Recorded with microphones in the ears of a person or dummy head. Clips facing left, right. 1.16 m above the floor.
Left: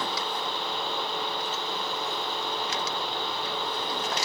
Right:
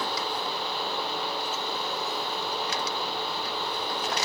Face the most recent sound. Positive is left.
No sound to turn to.